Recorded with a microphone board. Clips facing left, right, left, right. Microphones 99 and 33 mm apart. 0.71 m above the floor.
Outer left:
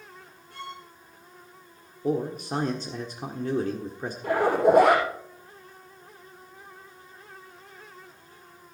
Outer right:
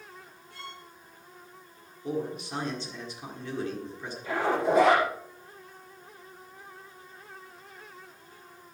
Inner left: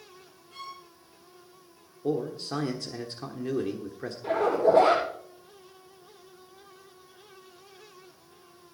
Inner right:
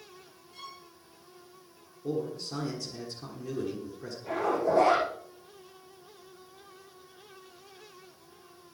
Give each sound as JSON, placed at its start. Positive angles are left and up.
{"t": 0.5, "sound": "a violin", "side_deg": 60, "distance_m": 8.5}
{"t": 2.0, "sound": "a man speaking", "side_deg": 45, "distance_m": 1.5}
{"t": 4.2, "sound": "a zipper", "side_deg": 60, "distance_m": 8.0}